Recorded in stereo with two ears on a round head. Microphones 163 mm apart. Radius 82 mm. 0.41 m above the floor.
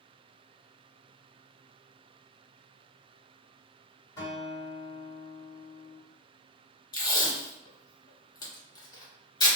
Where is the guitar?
20° left (ahead or behind), 1.3 m.